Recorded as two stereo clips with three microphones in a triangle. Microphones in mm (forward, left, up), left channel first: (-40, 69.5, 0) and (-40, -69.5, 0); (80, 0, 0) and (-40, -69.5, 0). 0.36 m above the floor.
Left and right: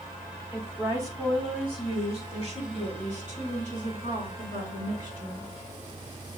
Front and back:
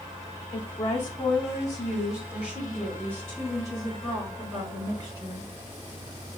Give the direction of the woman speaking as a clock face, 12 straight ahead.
12 o'clock.